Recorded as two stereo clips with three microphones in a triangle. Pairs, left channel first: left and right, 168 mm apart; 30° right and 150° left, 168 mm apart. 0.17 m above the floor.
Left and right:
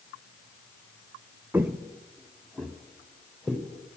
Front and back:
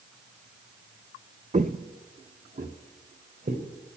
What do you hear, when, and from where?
1.5 s footsteps: 165° right, 0.7 m; by 3.6 s straight behind, 3 m